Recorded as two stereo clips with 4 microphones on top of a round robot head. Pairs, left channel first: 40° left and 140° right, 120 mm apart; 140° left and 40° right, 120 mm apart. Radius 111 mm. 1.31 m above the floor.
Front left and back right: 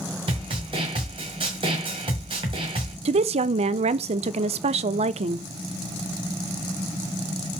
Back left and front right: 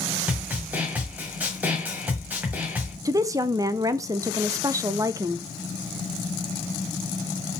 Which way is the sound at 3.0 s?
105° right.